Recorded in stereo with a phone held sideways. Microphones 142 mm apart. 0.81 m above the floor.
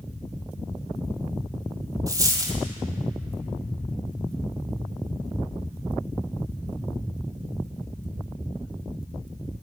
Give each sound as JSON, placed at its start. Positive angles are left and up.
{"t": 2.1, "sound": "a dropped coin", "side_deg": -25, "distance_m": 1.1}